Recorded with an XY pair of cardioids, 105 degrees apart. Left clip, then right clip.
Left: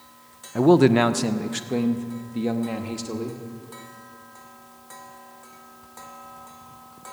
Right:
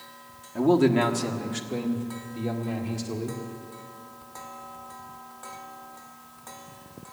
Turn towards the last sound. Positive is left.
turn(degrees=50)